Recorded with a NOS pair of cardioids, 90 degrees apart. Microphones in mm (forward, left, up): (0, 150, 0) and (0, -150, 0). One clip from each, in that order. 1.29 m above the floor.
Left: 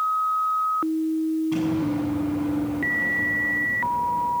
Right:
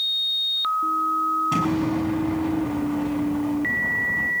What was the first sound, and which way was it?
An explosion, 55° right.